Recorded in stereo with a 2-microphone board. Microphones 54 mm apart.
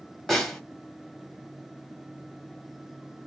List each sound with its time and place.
0.3 s a snare drum: 5° left (ahead or behind), 1.0 m